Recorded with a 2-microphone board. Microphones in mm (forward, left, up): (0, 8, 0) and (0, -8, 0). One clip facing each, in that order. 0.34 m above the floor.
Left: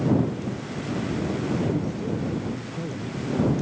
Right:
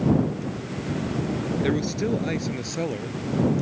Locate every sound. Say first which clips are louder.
1.6 s a man speaking: right 3 dB; 60° right (ahead or behind); by 3.5 s 80° right